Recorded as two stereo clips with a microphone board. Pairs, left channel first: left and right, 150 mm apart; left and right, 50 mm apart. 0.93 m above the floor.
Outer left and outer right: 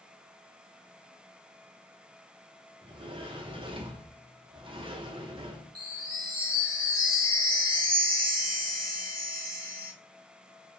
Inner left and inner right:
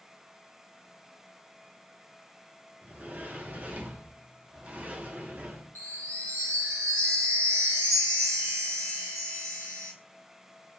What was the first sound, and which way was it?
A sliding door, 35° right (ahead or behind).